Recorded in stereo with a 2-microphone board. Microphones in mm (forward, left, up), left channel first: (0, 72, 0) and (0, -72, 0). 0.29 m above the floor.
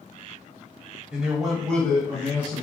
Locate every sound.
1.1 s a man speaking: 5° right (ahead or behind), 1.1 m; by 2.6 s 15° left (ahead or behind), 1.6 m